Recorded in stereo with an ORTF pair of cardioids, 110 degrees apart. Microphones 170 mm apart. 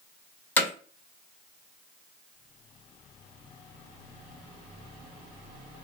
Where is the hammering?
10° left, 1.0 m.